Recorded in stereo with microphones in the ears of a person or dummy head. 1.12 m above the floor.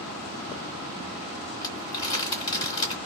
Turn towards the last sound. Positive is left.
turn(degrees=30)  # may be behind; listen again after turning